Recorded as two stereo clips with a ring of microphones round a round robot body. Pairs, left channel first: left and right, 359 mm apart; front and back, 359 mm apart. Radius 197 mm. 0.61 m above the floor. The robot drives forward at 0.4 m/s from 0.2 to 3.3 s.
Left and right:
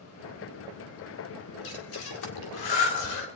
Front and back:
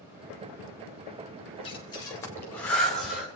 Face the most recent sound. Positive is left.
turn(degrees=95)